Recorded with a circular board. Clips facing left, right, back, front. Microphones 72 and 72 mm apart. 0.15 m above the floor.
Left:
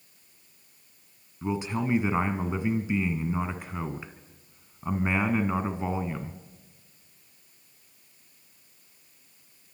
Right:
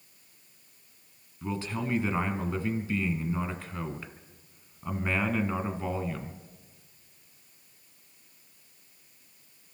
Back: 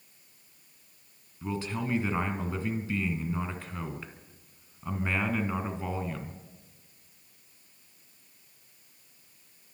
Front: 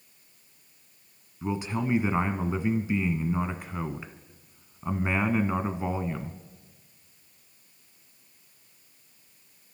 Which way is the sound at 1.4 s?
45° left.